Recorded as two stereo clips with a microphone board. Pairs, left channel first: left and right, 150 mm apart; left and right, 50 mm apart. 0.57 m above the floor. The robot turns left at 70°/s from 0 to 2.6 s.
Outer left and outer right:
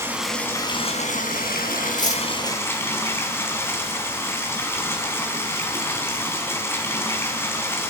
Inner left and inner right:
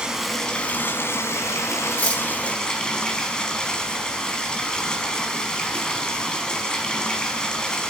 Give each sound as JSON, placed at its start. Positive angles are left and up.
{"t": 0.0, "sound": "running water", "azimuth_deg": -160, "distance_m": 4.0}
{"t": 1.9, "sound": "cutlery clinking", "side_deg": 35, "distance_m": 4.0}